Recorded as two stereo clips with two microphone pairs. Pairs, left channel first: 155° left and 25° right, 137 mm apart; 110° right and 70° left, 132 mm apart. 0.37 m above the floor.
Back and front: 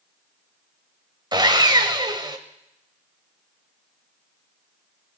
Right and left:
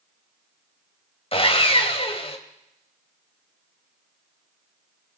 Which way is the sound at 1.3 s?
75° right.